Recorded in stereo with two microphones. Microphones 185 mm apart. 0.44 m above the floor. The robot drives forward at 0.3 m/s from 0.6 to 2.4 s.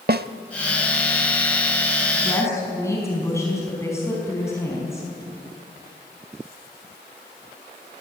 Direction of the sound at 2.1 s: 15° left (ahead or behind).